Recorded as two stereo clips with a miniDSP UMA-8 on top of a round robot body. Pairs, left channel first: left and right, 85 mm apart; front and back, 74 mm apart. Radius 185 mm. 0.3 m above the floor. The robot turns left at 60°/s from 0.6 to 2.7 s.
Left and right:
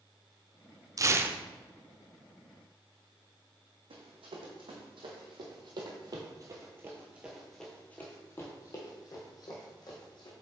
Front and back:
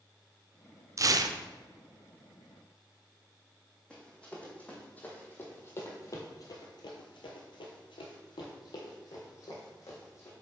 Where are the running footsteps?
75° right, 1.8 m; by 10.3 s 55° left, 1.8 m.